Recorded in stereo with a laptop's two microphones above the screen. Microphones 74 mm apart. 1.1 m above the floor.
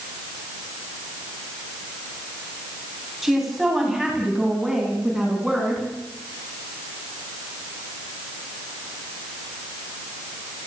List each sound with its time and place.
3.2 s a woman speaking: centre (ahead or behind), 8.5 m; by 5.9 s 5° right (ahead or behind), 11.5 m